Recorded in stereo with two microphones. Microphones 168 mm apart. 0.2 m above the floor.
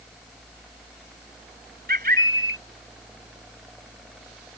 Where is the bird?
60° right (ahead or behind).